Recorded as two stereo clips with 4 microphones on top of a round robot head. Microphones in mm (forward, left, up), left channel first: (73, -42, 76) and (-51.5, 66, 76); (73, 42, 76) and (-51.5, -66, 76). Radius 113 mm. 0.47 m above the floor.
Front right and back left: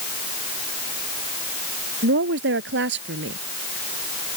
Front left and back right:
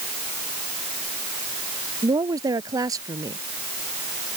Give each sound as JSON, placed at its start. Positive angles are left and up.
{"t": 2.0, "sound": "a woman speaking", "azimuth_deg": 150}